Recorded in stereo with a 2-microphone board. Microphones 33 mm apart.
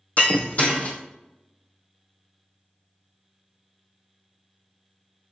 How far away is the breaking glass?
About 1.4 m.